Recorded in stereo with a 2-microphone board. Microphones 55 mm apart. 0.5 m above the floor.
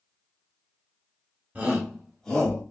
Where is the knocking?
No knocking in this recording.